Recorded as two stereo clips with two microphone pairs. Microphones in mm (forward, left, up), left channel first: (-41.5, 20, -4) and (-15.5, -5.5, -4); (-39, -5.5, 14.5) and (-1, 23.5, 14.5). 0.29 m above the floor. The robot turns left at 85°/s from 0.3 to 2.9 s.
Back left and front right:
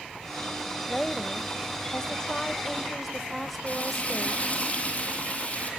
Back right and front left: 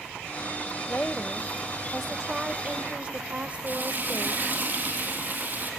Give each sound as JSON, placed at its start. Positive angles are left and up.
{"t": 0.9, "sound": "a woman speaking", "azimuth_deg": -140, "distance_m": 1.0}
{"t": 3.7, "sound": "frying", "azimuth_deg": 85, "distance_m": 3.5}